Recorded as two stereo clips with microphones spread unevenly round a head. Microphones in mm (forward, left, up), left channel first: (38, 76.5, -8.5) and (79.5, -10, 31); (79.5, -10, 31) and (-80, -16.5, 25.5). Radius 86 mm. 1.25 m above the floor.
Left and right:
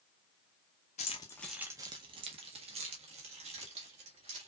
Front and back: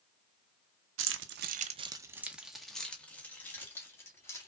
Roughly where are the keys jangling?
Behind.